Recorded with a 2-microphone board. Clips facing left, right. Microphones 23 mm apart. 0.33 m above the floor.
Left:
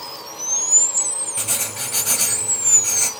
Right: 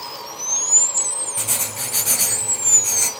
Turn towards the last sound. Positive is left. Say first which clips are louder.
# even
turn(degrees=5)  # may be behind; listen again after turning